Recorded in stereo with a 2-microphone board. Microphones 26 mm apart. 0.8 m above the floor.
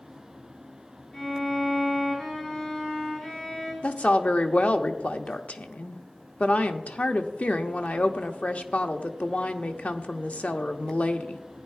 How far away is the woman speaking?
About 1.0 m.